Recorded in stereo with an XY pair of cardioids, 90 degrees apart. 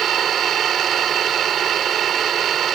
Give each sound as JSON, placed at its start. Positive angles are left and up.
{"t": 0.0, "sound": "an engine running", "azimuth_deg": -70}